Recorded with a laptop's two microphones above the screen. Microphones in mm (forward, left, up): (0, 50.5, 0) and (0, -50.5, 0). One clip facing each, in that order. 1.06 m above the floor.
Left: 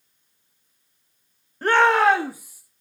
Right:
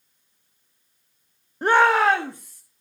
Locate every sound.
1.6 s a shout: 20° right (ahead or behind), 0.8 m; by 2.6 s 10° left (ahead or behind), 1.5 m